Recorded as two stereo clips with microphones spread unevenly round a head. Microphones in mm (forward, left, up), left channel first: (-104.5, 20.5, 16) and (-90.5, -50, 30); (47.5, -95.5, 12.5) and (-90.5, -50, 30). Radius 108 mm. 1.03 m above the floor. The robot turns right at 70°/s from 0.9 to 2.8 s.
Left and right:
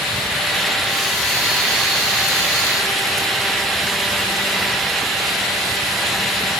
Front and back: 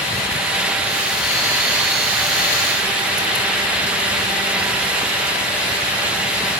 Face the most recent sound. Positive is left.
No sound to turn to.